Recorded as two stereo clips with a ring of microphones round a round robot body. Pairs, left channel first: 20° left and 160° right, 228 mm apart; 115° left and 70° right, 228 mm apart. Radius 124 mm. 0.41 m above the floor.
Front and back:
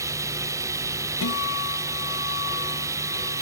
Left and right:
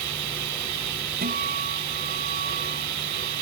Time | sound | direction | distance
0.0 | running water | 80° right | ?
1.2 | a guitar | 10° right | ?